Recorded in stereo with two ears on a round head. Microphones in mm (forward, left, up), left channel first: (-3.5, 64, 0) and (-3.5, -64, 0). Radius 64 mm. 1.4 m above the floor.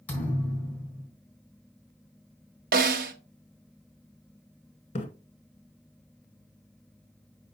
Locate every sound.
0.1 s a thud: 10° left (ahead or behind), 3.5 m
2.7 s a snare drum: 70° right (ahead or behind), 1.1 m
5.0 s a splash: 40° left (ahead or behind), 1.7 m